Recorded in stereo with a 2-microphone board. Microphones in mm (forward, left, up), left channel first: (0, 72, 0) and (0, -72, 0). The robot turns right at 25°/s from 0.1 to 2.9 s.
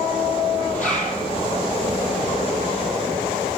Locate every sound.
0.8 s a zipper: 60° left (ahead or behind), 5 m; by 1.2 s 50° left (ahead or behind), 5 m